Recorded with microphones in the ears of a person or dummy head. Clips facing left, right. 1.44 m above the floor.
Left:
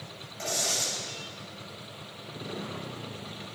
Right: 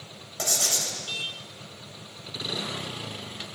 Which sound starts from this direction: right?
Writing, at 0.4 s.